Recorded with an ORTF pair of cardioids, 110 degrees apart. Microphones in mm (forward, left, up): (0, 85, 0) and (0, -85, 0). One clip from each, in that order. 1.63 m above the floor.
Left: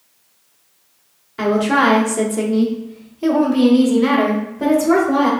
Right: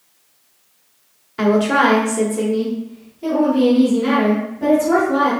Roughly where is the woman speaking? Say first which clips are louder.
Even; ahead.